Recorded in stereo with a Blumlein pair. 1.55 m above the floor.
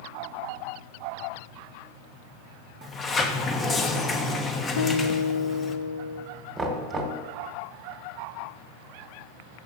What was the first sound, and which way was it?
A sliding door, 15° left.